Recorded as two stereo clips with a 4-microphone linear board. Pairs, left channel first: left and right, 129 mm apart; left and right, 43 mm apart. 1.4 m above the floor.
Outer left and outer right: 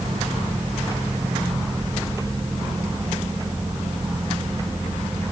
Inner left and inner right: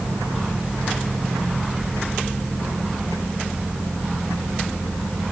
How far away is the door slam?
No door slam in this recording.